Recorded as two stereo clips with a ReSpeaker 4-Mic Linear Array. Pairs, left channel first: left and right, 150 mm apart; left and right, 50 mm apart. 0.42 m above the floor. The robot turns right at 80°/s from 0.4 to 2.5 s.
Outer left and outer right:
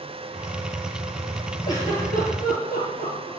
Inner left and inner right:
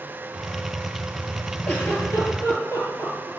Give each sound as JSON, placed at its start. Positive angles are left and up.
{"t": 1.7, "sound": "a giggle", "side_deg": 25, "distance_m": 8.0}